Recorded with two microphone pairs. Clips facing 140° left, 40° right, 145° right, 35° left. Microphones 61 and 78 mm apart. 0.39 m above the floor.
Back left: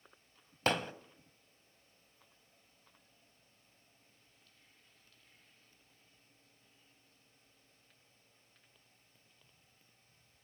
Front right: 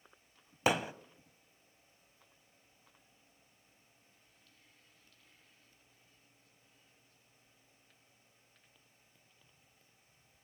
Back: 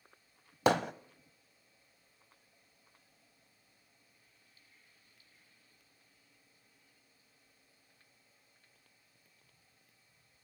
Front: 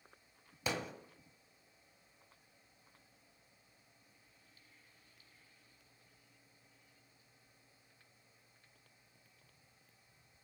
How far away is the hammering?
About 0.6 m.